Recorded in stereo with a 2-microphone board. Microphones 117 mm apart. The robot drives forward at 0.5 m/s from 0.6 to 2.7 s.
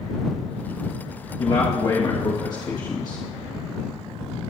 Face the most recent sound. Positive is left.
turn(degrees=35)  # may be behind; listen again after turning